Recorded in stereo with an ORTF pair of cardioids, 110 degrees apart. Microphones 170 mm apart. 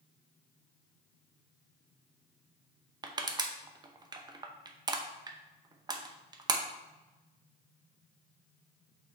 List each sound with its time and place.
3.0 s crushing: 25° right, 0.8 m